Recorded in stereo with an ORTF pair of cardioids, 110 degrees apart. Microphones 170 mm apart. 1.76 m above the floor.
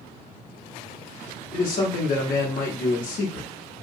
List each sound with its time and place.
1.5 s a man speaking: 55° left, 0.9 m